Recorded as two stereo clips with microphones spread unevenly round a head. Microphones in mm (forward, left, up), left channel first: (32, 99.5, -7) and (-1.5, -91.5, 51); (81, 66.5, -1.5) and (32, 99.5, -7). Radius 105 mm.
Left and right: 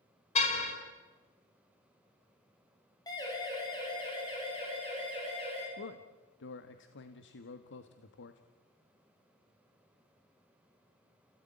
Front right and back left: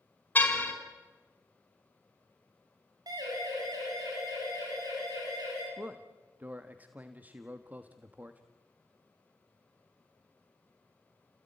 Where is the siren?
150° left, 5.5 m; by 5.7 s 145° left, 8.5 m.